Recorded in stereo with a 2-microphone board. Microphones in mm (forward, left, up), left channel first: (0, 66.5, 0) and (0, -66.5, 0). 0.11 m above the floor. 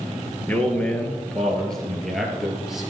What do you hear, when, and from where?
0.5 s a man speaking: 15° left (ahead or behind), 1.9 m; by 2.9 s centre (ahead or behind), 3 m